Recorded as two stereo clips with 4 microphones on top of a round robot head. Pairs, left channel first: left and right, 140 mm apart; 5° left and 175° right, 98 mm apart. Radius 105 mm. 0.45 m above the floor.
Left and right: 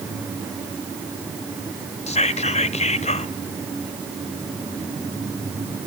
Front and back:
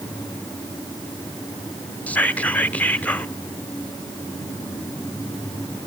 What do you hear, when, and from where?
2.1 s whispering: 80° left, 1.2 m